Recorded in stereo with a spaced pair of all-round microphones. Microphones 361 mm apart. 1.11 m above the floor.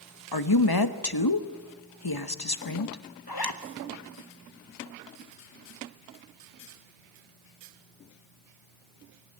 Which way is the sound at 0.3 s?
80° left.